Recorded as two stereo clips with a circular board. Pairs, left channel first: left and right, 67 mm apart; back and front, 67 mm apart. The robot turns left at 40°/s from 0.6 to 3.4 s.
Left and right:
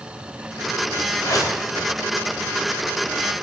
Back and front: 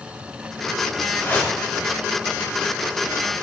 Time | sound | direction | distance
1.2 | a whoosh | 120° left | 0.6 m